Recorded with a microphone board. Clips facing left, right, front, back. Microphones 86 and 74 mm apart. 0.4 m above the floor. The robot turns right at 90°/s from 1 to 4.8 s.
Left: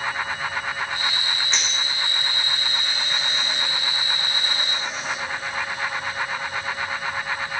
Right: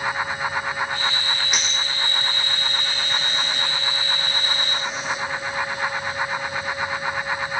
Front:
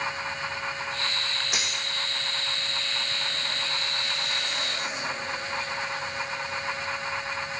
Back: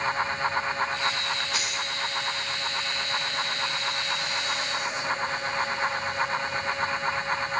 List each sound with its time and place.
1.5 s a dropped coin: 15° right, 2.5 m; by 1.8 s 15° left, 2.5 m